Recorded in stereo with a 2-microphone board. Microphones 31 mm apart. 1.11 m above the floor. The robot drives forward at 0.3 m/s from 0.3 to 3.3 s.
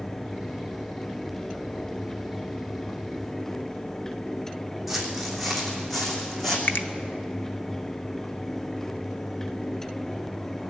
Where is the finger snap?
75° left (ahead or behind), 0.6 m.